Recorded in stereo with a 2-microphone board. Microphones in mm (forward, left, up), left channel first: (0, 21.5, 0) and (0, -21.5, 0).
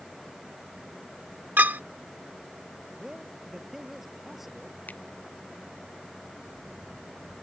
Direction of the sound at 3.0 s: 5° right (ahead or behind).